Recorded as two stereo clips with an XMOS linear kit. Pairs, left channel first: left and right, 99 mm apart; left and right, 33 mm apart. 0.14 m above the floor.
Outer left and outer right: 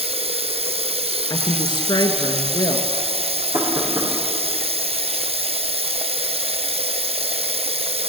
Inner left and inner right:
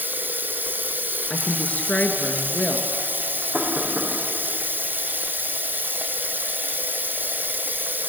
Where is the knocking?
50° right (ahead or behind), 6 m.